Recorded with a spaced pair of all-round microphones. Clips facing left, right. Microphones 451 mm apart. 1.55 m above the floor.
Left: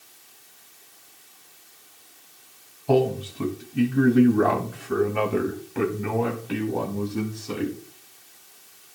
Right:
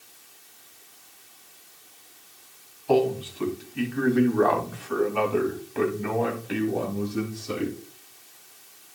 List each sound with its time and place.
2.9 s a man speaking: 65° left (ahead or behind), 2.5 m; by 7.8 s 5° left (ahead or behind), 3 m